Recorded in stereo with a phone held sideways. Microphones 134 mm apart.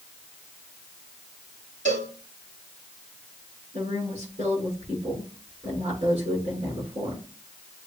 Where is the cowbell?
65° right (ahead or behind), 2.5 m.